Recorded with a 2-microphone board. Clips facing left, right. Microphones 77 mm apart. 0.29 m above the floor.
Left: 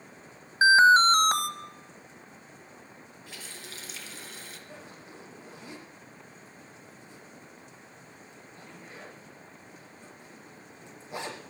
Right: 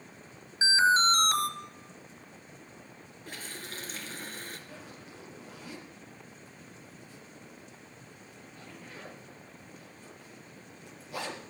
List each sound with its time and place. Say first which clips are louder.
0.6 s an alarm: left 7 dB; 50° left (ahead or behind), 1.1 m
3.3 s a running tap: right 4 dB; 45° right (ahead or behind), 3 m
4.7 s a zipper: left 1 dB; 20° left (ahead or behind), 5 m